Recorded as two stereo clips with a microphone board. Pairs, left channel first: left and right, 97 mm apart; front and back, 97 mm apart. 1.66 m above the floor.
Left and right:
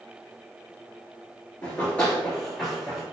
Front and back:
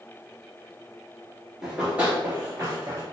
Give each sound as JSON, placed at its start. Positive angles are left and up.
{"t": 1.6, "sound": "running footsteps", "azimuth_deg": 110, "distance_m": 1.7}